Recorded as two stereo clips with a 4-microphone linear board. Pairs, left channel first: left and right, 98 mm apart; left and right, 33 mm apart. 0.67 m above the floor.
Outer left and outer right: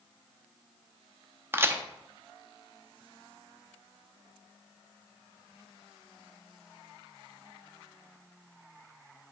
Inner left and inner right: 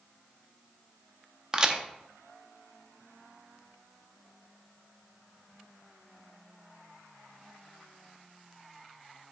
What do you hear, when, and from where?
1.5 s a crack: 25° right (ahead or behind), 0.5 m